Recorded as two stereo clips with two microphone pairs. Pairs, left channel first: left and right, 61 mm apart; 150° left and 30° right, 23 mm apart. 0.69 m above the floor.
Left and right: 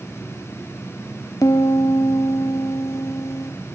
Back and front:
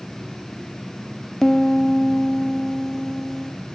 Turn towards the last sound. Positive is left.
turn(degrees=90)